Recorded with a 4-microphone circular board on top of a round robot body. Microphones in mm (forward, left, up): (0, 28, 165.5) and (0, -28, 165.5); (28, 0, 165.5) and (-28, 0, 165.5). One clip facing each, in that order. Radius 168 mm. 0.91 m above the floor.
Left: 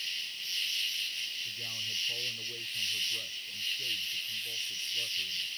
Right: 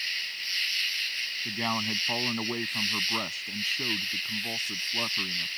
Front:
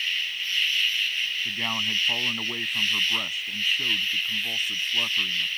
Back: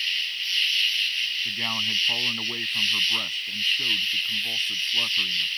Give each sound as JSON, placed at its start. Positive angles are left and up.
{"t": 0.0, "sound": "an insect", "azimuth_deg": -75}
{"t": 1.4, "sound": "a man speaking", "azimuth_deg": -85}